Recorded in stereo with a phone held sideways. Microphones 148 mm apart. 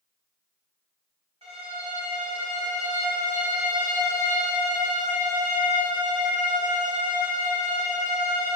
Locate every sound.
1.4 s a violin: 40° right (ahead or behind), 1.6 m